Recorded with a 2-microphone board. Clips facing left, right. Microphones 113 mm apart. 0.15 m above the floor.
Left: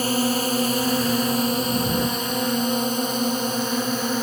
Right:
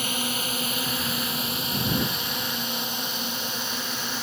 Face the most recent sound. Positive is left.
turn(degrees=45)  # may be behind; listen again after turning